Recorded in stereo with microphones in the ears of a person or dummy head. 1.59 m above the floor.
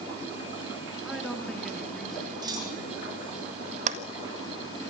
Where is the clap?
40° right (ahead or behind), 1.7 m.